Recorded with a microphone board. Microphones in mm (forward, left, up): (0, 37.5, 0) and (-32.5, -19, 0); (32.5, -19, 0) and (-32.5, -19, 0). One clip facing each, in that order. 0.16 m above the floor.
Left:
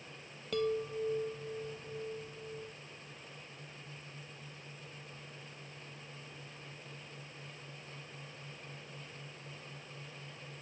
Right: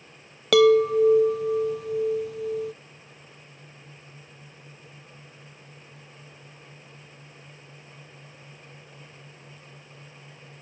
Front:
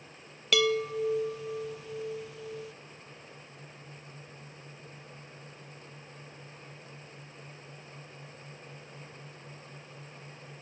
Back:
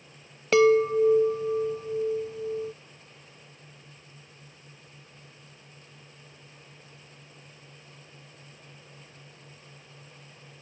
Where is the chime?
120° right.